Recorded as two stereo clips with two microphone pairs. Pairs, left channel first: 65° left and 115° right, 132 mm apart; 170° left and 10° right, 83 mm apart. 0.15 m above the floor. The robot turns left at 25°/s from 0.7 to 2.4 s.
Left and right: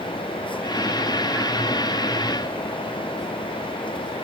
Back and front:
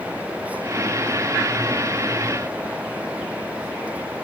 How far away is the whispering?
No whispering in this recording.